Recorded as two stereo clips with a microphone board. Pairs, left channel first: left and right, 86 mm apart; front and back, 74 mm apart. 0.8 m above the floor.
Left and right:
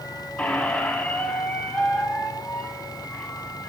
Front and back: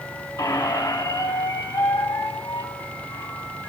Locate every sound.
0.4 s a squeak: 20° left, 1.1 m